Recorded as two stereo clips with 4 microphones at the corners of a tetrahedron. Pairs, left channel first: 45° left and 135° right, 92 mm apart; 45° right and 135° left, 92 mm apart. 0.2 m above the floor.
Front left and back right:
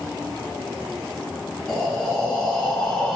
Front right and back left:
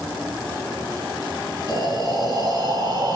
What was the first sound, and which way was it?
Breathing, 120° left.